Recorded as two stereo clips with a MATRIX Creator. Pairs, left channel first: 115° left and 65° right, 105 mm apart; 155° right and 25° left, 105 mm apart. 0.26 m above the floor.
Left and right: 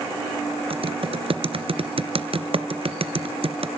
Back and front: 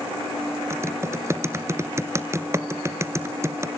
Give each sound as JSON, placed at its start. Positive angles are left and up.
{"t": 0.7, "sound": "typing on a keyboard", "azimuth_deg": -40, "distance_m": 1.0}